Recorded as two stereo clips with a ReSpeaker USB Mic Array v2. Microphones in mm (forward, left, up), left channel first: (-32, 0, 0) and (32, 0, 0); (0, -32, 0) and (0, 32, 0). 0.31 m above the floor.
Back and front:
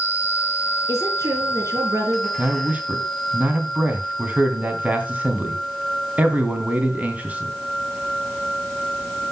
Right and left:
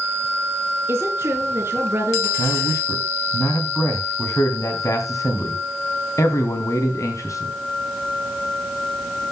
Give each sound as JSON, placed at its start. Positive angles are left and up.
{"t": 0.9, "sound": "a woman speaking", "azimuth_deg": 40, "distance_m": 5.0}
{"t": 2.4, "sound": "a man speaking", "azimuth_deg": -65, "distance_m": 2.5}